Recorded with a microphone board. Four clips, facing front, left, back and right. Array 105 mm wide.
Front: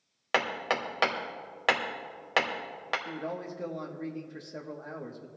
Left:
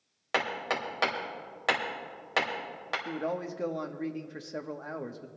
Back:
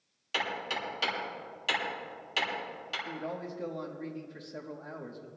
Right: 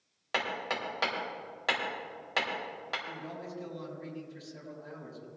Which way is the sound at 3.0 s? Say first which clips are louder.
Left 8 dB, front 1 dB; 80° left.